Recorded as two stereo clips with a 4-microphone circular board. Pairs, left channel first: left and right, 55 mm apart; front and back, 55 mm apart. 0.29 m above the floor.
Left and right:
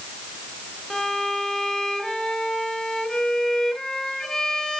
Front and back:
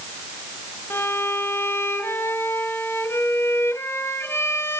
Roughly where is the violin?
Ahead.